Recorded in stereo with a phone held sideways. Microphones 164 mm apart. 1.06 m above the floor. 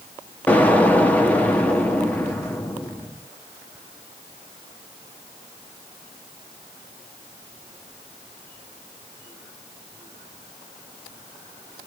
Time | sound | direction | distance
0.5 | an explosion | 10° left (ahead or behind) | 0.7 m